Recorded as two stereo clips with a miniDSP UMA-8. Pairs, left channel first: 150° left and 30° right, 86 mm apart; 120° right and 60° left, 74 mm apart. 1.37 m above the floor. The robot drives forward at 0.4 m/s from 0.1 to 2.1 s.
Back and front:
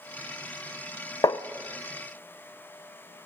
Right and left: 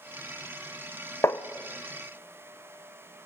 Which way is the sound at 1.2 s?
170° right.